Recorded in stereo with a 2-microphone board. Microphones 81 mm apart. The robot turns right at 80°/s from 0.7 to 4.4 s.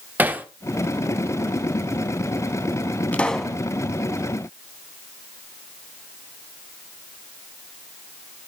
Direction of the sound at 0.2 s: 20° right (ahead or behind).